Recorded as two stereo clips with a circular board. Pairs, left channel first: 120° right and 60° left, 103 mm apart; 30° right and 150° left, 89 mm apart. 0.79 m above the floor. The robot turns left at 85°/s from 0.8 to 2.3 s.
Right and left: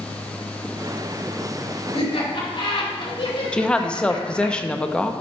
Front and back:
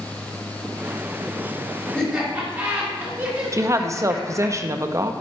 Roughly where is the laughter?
Right.